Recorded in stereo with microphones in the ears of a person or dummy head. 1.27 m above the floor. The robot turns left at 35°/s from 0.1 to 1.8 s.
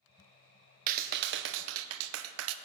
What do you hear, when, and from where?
0.9 s a clap: 45° right, 0.5 m; by 2.5 s 75° right, 0.5 m